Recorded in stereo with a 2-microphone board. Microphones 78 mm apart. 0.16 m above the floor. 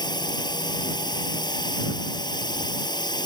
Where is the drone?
60° left (ahead or behind).